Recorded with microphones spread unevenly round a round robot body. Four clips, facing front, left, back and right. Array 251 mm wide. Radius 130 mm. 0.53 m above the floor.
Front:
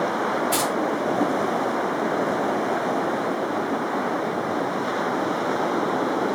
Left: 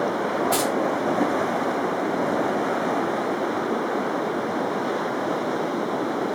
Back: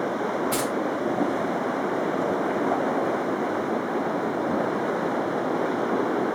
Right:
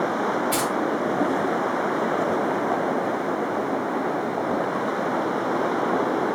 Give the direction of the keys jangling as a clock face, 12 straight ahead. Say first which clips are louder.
Left 2 dB, front 2 dB; 7 o'clock.